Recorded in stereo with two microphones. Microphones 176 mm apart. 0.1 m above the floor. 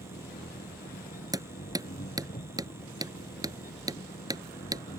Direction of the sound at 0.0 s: 55° left (ahead or behind).